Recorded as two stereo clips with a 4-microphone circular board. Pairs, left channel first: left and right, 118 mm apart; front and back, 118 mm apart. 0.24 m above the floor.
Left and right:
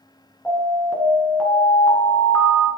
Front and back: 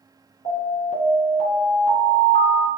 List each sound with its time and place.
0.5 s an alarm: 10° left, 2.0 m